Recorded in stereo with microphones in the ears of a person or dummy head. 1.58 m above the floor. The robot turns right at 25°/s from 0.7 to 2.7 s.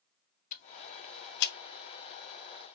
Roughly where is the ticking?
Left.